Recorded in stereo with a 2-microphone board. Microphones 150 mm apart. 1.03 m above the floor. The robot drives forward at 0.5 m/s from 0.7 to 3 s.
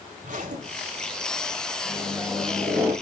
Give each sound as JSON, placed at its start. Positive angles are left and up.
{"t": 0.2, "sound": "a zipper", "side_deg": -60, "distance_m": 2.5}
{"t": 1.8, "sound": "a microwave", "side_deg": -15, "distance_m": 3.5}